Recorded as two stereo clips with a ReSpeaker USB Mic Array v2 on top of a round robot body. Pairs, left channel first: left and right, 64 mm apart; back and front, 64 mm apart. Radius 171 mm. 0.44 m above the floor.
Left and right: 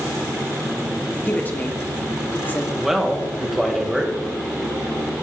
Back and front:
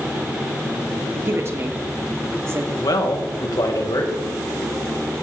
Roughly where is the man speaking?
Behind.